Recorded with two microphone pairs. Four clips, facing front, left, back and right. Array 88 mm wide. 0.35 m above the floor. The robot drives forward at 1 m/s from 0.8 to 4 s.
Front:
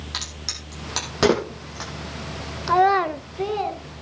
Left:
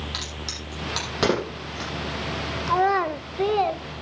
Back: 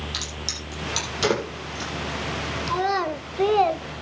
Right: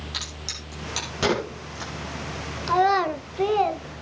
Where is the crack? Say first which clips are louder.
Left 3 dB, back 2 dB; 25° left, 9 m; by 1.9 s 30° left, 8 m.